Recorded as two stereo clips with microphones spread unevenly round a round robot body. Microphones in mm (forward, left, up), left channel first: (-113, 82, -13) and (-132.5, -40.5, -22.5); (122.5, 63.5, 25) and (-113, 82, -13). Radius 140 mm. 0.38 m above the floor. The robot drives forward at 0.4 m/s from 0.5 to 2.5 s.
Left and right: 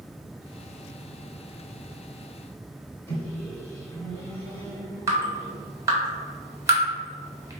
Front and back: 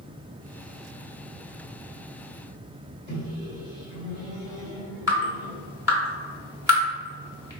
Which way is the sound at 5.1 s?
135° right.